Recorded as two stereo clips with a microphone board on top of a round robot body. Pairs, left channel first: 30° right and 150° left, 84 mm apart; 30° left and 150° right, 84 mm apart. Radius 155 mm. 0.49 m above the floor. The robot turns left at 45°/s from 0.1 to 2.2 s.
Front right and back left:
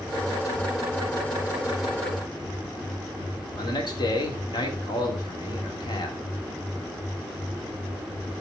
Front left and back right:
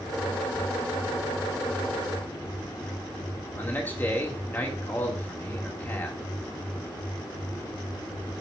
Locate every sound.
3.6 s a man speaking: 35° right, 2 m